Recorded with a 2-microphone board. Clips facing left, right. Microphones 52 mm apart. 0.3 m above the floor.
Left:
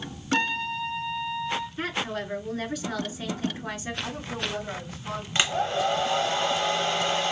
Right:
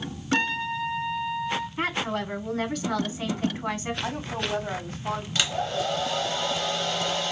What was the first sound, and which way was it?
A trumpet, 15° right (ahead or behind).